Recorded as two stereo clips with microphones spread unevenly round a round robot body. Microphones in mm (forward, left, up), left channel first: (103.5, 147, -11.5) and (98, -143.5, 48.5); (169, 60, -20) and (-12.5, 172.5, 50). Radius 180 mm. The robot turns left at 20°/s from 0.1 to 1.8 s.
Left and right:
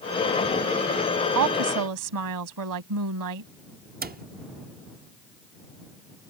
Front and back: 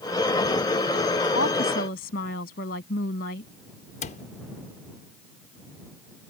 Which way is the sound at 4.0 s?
30° right.